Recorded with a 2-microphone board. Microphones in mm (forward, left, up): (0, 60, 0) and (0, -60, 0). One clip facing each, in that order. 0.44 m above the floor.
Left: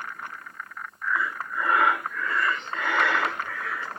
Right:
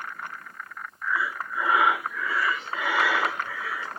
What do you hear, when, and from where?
1.0 s breathing: 5° right (ahead or behind), 0.7 m